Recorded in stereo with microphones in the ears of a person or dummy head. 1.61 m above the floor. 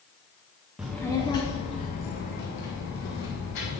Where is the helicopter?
No helicopter in this recording.